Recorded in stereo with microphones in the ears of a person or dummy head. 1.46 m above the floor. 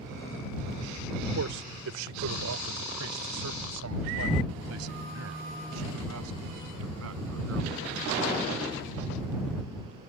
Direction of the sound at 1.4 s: 70° right (ahead or behind).